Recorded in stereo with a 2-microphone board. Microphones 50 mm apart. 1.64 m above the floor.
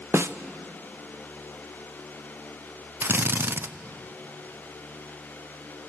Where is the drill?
45° right (ahead or behind), 0.5 m.